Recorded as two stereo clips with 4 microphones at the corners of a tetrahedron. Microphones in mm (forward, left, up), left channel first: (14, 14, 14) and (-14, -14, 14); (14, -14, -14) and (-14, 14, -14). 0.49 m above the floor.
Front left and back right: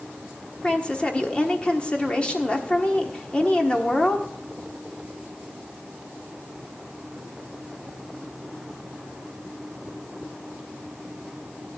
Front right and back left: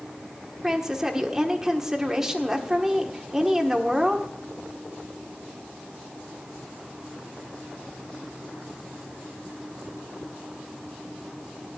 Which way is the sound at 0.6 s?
70° left.